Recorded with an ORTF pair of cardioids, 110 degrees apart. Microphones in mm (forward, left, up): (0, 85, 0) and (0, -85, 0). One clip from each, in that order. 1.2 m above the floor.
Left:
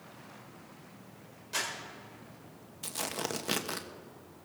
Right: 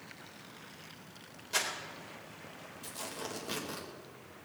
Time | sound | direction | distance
1.5 | crumpling | 10° right | 4 m
2.8 | tearing paper | 50° left | 1.3 m